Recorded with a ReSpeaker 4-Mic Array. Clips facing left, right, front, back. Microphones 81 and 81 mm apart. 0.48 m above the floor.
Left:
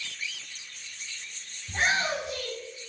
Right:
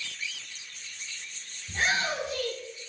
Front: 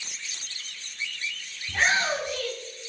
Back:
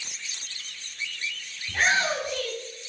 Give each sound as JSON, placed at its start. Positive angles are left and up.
{"t": 1.7, "sound": "a shout", "azimuth_deg": 100, "distance_m": 4.0}